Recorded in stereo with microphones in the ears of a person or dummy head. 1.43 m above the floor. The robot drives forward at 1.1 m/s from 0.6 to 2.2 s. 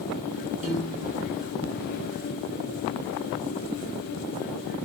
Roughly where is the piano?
Right.